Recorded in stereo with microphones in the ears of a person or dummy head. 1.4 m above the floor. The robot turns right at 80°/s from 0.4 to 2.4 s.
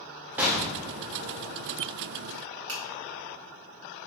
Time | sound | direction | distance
0.4 | an explosion | 15° right | 0.5 m
2.7 | a finger snap | 70° right (ahead or behind) | 1.4 m